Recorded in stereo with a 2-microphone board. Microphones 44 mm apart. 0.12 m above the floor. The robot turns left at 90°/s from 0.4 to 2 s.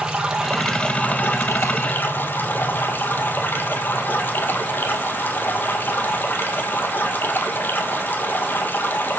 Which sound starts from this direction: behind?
Running water, at 0.0 s.